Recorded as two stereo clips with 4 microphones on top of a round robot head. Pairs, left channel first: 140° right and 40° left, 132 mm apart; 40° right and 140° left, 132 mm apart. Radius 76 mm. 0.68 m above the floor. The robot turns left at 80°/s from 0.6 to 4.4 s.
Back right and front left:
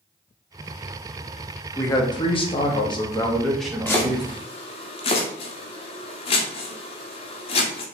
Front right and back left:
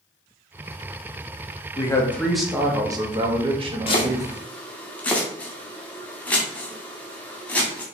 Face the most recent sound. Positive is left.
turn(degrees=-115)